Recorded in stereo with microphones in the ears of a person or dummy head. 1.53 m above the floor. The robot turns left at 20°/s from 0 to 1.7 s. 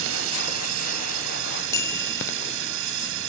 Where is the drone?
75° right; by 3.3 s 110° right.